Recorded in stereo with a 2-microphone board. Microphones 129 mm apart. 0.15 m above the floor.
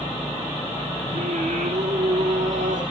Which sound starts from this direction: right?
Singing, at 1.1 s.